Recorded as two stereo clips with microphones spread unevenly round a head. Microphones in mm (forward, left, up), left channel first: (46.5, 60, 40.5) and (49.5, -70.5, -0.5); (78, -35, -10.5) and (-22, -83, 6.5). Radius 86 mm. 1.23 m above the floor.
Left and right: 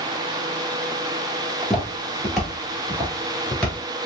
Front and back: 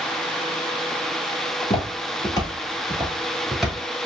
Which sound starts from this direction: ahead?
Footsteps, at 1.6 s.